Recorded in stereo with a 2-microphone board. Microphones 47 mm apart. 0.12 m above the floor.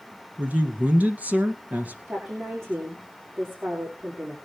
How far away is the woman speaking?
About 6.5 m.